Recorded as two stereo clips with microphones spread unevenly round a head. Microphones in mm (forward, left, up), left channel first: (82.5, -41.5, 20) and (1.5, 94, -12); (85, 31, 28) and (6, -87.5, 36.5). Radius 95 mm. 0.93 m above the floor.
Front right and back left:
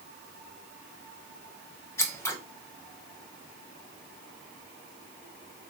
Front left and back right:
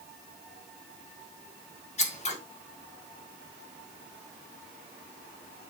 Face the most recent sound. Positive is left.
turn(degrees=15)